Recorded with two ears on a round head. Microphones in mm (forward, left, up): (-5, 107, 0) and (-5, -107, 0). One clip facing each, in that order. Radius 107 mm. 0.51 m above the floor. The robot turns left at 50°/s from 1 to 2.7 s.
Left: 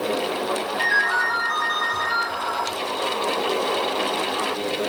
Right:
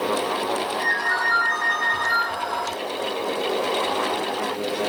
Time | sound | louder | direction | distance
0.8 | a ringtone | even | 45° left | 6 m